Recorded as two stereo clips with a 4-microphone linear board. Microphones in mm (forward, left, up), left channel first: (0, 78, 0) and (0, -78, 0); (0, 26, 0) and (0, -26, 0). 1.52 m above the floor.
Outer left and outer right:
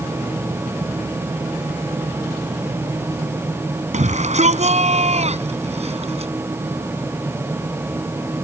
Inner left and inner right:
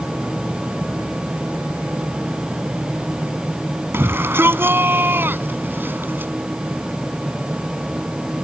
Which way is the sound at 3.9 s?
50° right (ahead or behind).